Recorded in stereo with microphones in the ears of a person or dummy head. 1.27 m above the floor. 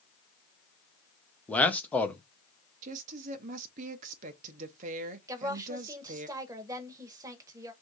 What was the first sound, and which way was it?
A man speaking, 5° left (ahead or behind).